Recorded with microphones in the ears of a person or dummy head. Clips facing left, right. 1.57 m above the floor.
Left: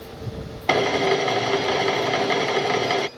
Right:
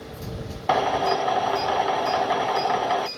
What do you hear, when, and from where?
0.7 s a drill: 40° left (ahead or behind)